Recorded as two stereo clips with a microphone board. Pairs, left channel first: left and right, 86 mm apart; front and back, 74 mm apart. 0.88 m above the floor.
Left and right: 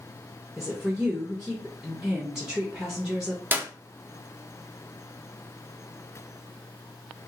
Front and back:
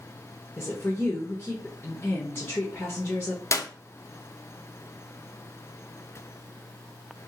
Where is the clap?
30° right, 0.5 m.